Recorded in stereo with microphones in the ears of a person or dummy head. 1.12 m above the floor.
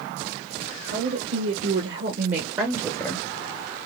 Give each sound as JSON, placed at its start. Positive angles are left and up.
{"t": 0.9, "sound": "a woman speaking", "side_deg": -70, "distance_m": 2.0}